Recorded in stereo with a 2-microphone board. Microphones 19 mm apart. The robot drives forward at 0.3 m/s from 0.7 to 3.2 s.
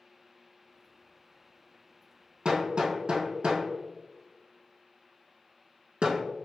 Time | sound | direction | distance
2.5 | hammering | 65° right (ahead or behind) | 1.3 m